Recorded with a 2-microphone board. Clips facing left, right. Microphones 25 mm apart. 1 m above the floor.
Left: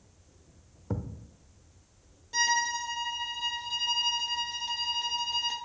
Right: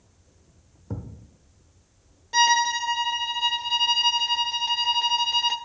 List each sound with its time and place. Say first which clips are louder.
0.9 s a thud: left 1 dB; 20° left (ahead or behind), 0.7 m
2.3 s a violin: right 7 dB; 30° right (ahead or behind), 0.6 m